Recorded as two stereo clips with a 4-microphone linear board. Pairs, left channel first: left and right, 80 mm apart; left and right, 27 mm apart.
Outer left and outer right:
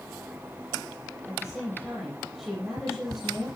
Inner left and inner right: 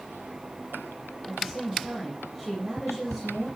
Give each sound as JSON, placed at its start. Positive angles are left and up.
{"t": 1.2, "sound": "a woman speaking", "side_deg": -5, "distance_m": 5.0}